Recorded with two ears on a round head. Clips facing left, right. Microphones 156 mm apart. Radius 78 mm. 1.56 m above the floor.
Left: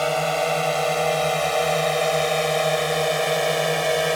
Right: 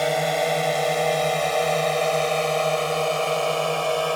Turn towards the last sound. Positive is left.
turn(degrees=15)  # may be behind; listen again after turning